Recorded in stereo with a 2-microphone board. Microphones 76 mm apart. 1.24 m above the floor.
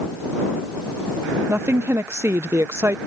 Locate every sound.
1.5 s a woman speaking: 35° right (ahead or behind)